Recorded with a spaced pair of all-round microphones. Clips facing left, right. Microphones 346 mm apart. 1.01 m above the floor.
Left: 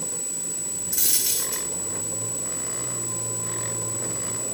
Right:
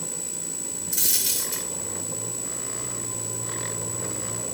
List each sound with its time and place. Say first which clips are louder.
0.9 s a dropped coin: left 1 dB; 50° right (ahead or behind), 2.0 m